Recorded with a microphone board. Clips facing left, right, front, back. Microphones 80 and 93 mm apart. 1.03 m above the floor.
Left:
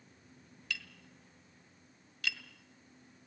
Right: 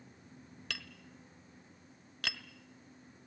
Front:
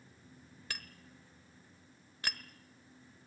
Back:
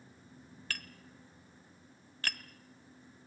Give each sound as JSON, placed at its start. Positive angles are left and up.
{"t": 0.7, "sound": "tapping", "azimuth_deg": -75, "distance_m": 1.4}